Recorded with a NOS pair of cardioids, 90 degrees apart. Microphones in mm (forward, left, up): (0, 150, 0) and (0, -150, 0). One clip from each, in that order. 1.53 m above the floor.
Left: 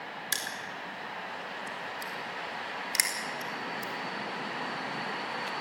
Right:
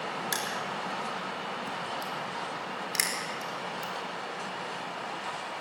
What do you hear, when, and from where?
0.3 s crushing: 20° left, 4.5 m